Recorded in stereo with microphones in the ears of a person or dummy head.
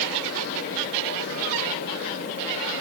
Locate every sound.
Only background noise.